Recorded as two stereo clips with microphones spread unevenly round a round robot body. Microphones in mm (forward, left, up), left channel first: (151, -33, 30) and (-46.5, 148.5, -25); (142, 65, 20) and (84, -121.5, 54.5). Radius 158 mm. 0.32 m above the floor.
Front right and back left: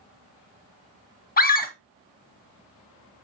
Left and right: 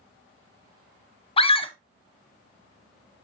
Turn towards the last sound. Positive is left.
turn(degrees=20)